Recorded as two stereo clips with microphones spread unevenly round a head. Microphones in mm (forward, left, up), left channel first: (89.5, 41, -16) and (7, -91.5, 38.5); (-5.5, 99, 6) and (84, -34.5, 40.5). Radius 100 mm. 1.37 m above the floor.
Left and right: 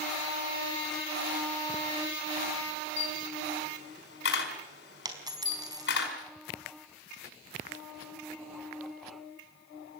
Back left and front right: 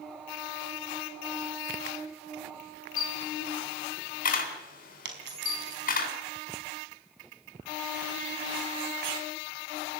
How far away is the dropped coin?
About 4.5 m.